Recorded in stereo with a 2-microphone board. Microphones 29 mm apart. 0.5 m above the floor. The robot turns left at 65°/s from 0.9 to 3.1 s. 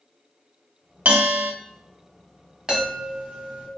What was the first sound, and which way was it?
A bell, 65° right.